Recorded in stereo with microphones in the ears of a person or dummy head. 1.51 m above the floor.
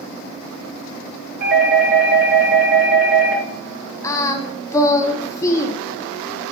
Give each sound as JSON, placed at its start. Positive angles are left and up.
{"t": 1.4, "sound": "a doorbell", "side_deg": -60, "distance_m": 2.0}
{"t": 4.0, "sound": "singing", "side_deg": 15, "distance_m": 0.6}